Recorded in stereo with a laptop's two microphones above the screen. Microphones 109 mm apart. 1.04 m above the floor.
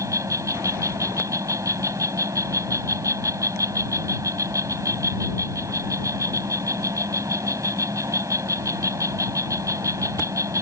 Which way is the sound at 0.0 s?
30° right (ahead or behind).